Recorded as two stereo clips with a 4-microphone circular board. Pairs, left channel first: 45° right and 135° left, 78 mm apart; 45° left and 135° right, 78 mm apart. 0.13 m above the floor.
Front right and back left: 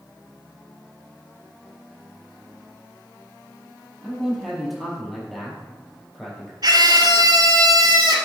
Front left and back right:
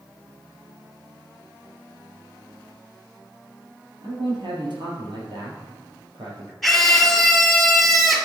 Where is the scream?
130° left, 2.5 m.